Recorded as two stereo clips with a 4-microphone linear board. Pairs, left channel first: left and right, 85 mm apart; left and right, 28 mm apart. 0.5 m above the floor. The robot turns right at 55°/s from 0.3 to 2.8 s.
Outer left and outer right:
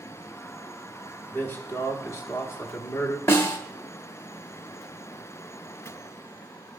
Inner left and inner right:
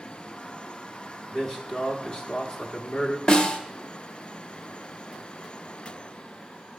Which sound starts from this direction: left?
A snare drum, at 3.3 s.